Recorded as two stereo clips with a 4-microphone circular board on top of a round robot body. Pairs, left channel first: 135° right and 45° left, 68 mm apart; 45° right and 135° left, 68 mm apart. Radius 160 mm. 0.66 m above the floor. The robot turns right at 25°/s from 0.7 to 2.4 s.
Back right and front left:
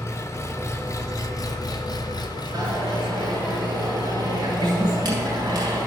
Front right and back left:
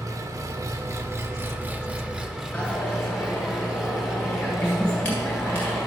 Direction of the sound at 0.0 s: 175° left.